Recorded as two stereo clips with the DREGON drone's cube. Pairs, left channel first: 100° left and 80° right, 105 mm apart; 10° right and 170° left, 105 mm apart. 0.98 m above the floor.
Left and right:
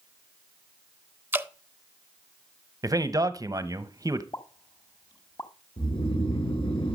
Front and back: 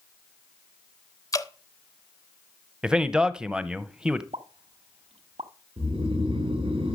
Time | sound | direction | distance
1.3 | dripping | 20° right | 0.8 m
2.8 | a man speaking | 110° right | 0.9 m
4.3 | a pop | 150° left | 1.3 m
5.8 | snoring | 135° left | 2.5 m